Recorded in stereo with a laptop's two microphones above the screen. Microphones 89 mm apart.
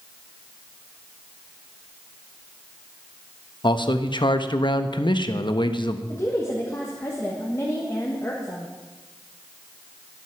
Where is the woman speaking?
30° left (ahead or behind), 1.4 m.